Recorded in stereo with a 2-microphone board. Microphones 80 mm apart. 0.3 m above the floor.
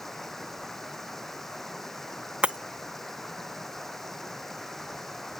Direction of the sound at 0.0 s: 5° left (ahead or behind).